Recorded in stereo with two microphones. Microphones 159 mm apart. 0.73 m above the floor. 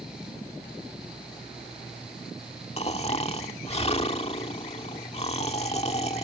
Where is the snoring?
40° left (ahead or behind).